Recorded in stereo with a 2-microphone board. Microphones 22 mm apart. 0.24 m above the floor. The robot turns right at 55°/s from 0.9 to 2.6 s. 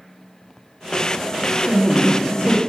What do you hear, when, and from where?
1.7 s a woman speaking: 85° left, 3 m; by 2.6 s 135° left, 3 m